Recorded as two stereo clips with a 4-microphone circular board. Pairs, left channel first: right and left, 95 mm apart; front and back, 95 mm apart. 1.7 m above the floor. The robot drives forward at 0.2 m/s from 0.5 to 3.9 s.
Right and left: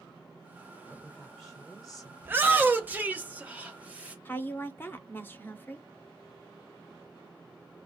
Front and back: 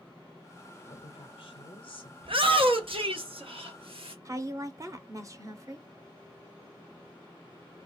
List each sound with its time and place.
0.9 s a woman speaking: straight ahead, 0.9 m
2.2 s a shout: 160° left, 0.7 m; by 4.2 s 165° left, 1.0 m
4.2 s a woman speaking: 145° right, 0.6 m